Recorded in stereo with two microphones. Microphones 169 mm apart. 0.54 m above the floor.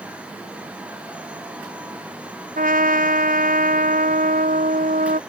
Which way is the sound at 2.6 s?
55° right (ahead or behind).